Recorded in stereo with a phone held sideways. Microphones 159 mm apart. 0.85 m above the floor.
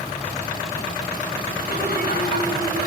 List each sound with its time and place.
1.6 s laughter: 85° left, 4.5 m